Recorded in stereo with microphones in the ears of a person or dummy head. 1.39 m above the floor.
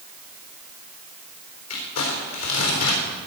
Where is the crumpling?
80° left, 3.5 m.